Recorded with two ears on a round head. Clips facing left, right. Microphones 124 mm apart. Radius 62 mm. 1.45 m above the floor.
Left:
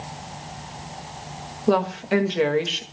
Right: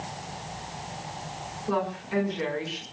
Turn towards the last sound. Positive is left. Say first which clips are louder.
# left 8 dB
turn(degrees=80)